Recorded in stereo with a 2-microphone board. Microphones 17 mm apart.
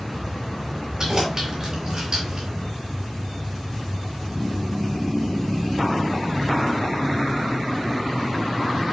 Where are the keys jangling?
40° right (ahead or behind), 4.5 m.